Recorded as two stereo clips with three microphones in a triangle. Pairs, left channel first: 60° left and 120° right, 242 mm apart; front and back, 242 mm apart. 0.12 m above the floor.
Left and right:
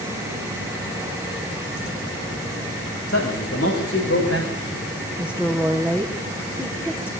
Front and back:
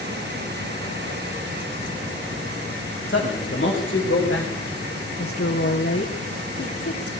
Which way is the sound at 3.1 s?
40° left.